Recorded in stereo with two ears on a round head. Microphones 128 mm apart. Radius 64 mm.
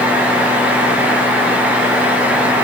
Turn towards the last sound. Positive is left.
No sound to turn to.